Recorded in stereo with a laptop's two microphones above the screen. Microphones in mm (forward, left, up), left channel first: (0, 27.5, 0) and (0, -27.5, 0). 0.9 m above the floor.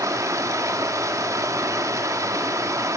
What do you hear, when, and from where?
0.0 s running water: 75° right (ahead or behind), 1.3 m